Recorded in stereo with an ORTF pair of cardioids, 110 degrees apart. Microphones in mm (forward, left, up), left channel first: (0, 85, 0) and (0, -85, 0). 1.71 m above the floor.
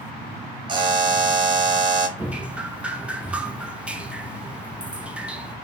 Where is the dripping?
5° right, 0.6 m.